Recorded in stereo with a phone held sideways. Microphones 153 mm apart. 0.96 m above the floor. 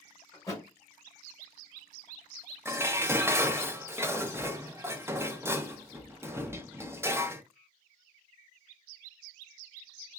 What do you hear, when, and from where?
0.3 s a thud: 20° left (ahead or behind), 1.8 m
2.6 s dishes clattering: 15° right (ahead or behind), 0.6 m